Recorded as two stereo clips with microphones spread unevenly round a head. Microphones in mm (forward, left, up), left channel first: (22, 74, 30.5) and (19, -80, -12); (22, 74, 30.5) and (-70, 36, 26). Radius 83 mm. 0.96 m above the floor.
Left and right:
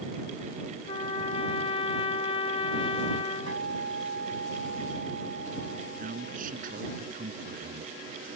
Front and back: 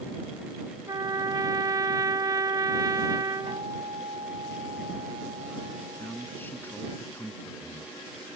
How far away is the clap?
No clap in this recording.